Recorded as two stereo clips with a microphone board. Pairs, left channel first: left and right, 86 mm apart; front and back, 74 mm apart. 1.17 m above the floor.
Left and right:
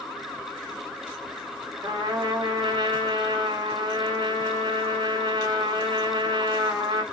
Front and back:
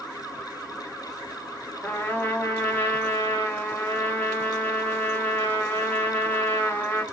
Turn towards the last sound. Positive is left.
turn(degrees=-65)